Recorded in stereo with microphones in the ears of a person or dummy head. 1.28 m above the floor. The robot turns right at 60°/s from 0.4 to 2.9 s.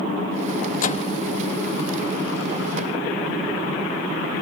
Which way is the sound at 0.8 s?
55° left (ahead or behind).